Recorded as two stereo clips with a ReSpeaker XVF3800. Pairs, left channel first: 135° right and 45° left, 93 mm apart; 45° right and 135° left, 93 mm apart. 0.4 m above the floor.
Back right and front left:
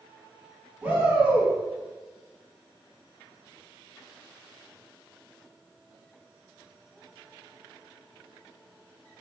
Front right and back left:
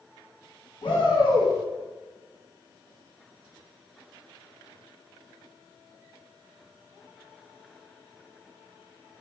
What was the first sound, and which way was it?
A shout, 25° right.